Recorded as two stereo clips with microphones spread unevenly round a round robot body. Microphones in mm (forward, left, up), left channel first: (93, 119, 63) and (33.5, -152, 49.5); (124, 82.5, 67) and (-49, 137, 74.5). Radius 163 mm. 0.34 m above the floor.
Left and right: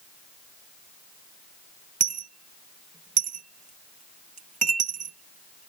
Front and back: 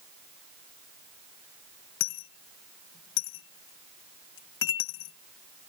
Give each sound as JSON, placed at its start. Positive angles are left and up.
{"t": 2.0, "sound": "a dropped coin", "azimuth_deg": -35}